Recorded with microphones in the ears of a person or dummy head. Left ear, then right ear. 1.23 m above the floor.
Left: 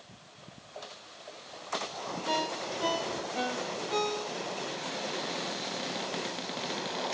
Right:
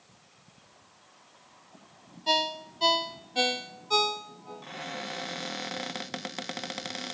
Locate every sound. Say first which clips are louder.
2.3 s a ringtone: right 5 dB; 50° right (ahead or behind), 0.9 m
4.6 s a cupboard door: left 2 dB; 35° right (ahead or behind), 0.8 m